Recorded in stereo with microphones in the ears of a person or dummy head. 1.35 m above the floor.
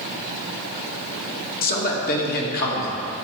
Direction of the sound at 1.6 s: 50° left (ahead or behind).